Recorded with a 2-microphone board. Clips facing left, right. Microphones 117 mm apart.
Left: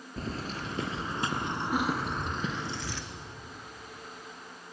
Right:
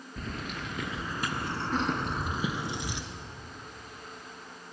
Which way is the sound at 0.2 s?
35° left (ahead or behind).